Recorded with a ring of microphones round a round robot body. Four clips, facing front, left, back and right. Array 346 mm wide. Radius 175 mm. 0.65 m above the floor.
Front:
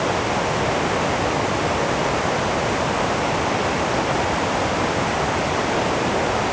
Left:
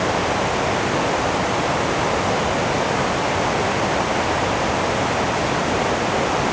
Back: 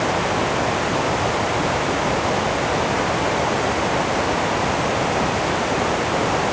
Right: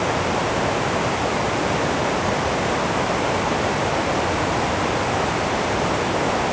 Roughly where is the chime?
No chime in this recording.